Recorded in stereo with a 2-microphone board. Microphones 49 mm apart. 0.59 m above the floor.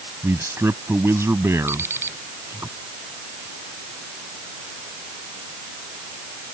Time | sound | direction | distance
0.2 | a man speaking | 75° right (ahead or behind) | ?
1.7 | an alarm clock | 60° right (ahead or behind) | ?